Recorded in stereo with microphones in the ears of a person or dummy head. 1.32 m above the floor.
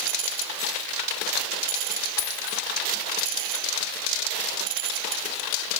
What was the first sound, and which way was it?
A dropped coin, 25° left (ahead or behind).